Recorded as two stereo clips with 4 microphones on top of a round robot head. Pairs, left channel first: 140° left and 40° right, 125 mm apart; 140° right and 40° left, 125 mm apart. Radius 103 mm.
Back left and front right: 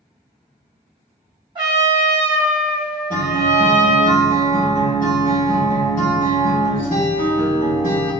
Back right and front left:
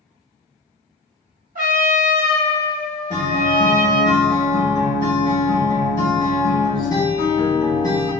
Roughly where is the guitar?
Behind left.